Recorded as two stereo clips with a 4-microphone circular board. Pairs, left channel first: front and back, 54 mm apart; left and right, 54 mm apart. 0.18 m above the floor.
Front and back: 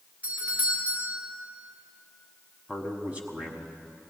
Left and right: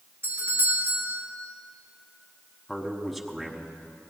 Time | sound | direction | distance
0.2 | a doorbell | 120° right | 3.5 m
2.7 | a man speaking | straight behind | 1.2 m